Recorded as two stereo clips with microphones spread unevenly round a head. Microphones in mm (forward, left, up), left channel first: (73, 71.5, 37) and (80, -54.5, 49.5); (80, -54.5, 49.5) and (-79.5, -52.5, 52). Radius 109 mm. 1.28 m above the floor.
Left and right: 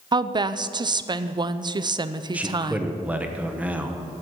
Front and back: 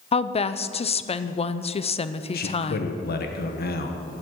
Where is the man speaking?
5° right, 1.3 m.